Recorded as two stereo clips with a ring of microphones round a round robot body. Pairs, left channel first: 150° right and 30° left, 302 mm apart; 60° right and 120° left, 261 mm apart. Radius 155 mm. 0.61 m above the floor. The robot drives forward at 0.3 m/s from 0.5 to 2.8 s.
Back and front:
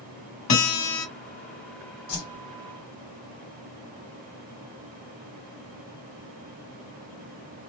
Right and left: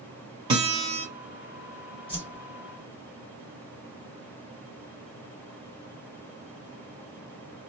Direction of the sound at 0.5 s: 170° right.